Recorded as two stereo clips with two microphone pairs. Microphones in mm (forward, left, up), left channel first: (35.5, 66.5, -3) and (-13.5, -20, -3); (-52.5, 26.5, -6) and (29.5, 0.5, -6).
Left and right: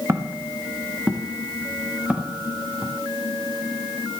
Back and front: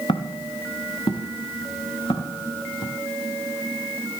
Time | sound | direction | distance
0.1 | footsteps | 175° left | 2.5 m